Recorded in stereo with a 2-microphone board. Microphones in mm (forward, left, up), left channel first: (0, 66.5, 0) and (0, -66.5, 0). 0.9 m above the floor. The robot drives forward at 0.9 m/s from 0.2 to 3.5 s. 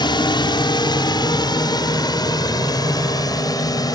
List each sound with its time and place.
0.0 s a drone: 35° left (ahead or behind); by 4.0 s 30° left (ahead or behind)